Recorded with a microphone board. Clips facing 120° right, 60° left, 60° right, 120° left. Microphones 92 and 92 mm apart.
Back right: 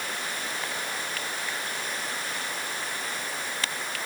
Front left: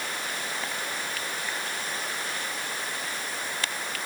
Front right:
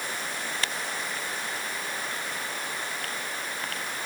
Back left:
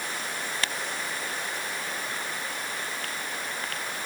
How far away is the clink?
I don't hear a clink.